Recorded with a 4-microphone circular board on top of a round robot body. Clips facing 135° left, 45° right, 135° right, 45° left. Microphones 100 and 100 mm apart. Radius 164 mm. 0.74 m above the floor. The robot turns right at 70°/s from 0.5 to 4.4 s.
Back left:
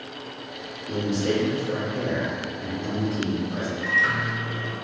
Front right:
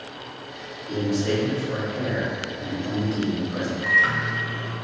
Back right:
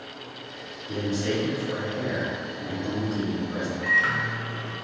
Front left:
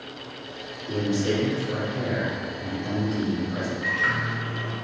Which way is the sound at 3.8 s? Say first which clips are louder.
Front right 2 dB, back right 1 dB; 90° right.